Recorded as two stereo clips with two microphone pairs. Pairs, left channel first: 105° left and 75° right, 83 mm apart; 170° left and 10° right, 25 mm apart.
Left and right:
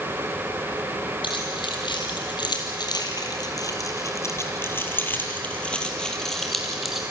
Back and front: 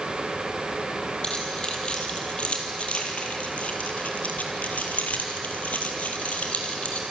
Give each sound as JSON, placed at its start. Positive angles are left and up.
{"t": 1.2, "sound": "keys jangling", "azimuth_deg": 120, "distance_m": 4.5}